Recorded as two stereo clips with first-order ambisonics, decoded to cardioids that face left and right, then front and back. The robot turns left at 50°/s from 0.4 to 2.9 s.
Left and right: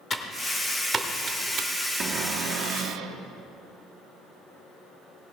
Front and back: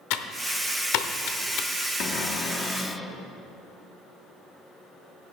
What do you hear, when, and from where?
0.1 s typing on a keyboard: 15° left, 0.8 m; by 1.7 s 50° right, 0.8 m
2.0 s a cupboard door: 35° right, 0.6 m; by 3.2 s 80° right, 0.6 m